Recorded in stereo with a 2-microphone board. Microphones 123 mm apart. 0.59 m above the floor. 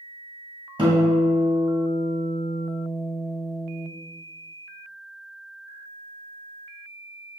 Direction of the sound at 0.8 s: 40° right (ahead or behind).